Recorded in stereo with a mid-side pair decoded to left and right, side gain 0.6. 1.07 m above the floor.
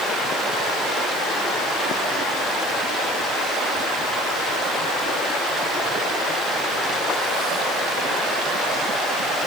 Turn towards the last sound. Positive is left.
No sound to turn to.